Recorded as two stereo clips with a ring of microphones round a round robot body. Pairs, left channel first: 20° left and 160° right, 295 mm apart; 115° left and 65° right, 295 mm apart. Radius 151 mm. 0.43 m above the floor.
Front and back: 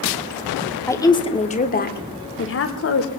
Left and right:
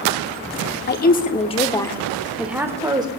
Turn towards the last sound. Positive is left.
turn(degrees=5)